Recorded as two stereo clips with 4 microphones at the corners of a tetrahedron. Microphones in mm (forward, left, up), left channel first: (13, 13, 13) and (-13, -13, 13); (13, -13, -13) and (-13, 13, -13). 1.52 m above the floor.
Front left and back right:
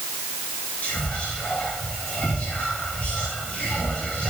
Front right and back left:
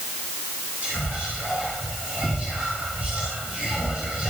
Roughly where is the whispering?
Left.